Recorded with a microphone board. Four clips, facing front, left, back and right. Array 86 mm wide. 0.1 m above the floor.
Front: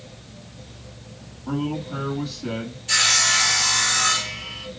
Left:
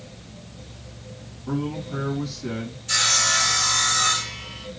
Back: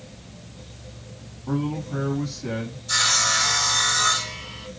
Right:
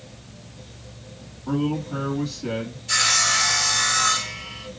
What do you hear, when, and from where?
1.5 s a man speaking: 40° right, 3 m
2.9 s sawing: 5° right, 2.0 m